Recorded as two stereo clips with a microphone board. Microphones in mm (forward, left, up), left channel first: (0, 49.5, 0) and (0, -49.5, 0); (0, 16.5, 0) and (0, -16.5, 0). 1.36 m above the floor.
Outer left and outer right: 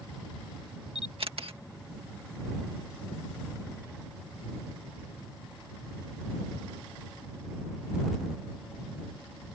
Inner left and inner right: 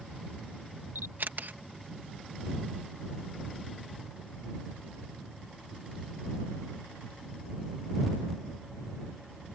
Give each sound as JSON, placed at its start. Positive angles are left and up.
{"t": 0.9, "sound": "a camera shutter", "side_deg": -70}